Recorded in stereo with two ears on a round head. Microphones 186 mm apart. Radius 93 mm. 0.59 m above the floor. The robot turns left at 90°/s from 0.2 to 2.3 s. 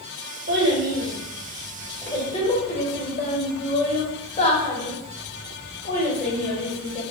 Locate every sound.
0.5 s a child speaking: 45° right (ahead or behind), 1.1 m; by 7.0 s 30° left (ahead or behind), 1.1 m